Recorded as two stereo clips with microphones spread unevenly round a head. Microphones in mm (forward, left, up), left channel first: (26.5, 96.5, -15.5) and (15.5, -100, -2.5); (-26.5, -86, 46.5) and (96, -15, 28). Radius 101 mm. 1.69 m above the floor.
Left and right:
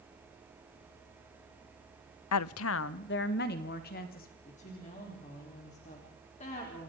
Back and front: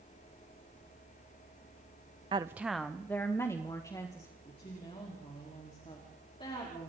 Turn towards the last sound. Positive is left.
turn(degrees=145)